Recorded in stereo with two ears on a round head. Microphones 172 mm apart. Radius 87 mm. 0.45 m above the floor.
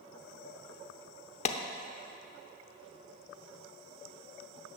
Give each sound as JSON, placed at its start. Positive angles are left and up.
{"t": 1.4, "sound": "a clap", "side_deg": 35, "distance_m": 0.7}